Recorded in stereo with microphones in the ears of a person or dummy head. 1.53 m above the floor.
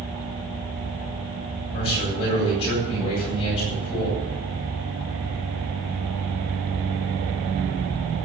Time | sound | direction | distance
1.7 | a man speaking | 30° left (ahead or behind) | 7.5 m